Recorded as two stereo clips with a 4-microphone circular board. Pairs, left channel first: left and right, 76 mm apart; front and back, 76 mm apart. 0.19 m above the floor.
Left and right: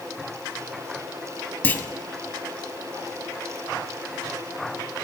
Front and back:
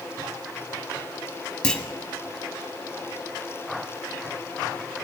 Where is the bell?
No bell in this recording.